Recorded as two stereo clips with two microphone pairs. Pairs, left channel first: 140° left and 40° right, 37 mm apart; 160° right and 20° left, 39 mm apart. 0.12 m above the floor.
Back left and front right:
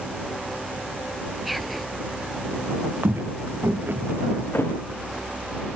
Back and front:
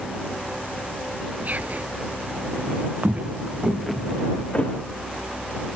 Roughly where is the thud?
Behind left.